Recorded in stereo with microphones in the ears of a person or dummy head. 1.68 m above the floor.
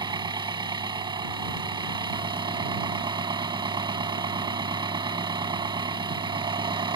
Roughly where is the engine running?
Right.